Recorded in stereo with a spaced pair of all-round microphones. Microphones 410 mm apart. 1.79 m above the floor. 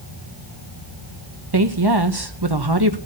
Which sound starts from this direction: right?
A woman speaking, at 1.5 s.